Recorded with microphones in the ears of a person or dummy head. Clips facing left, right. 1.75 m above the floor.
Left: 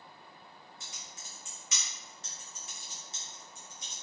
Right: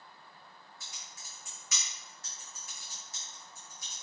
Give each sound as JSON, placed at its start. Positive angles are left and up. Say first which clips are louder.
{"t": 0.8, "sound": "typing on a keyboard", "louder": "left 2 dB", "side_deg": 20, "distance_m": 0.9}